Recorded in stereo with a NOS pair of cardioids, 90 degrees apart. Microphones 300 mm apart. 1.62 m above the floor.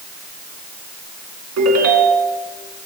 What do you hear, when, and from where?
1.6 s a ringtone: 60° right, 2.5 m